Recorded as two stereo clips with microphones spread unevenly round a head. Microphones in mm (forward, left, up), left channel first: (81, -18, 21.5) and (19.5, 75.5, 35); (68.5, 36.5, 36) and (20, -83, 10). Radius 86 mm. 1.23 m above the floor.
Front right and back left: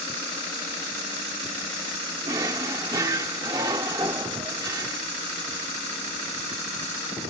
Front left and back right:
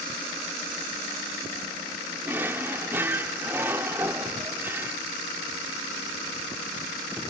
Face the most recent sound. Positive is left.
turn(degrees=160)